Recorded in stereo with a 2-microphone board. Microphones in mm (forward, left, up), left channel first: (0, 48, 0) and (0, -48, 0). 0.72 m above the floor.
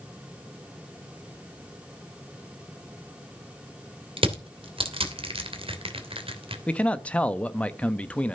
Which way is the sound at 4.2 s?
70° right (ahead or behind).